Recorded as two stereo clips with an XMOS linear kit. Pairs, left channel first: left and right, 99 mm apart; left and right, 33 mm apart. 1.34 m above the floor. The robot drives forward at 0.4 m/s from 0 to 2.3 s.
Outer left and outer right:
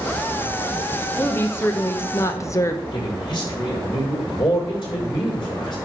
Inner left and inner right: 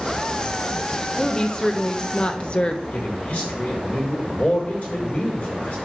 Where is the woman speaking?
20° left (ahead or behind), 1.4 m; by 2.8 s 30° left (ahead or behind), 1.0 m.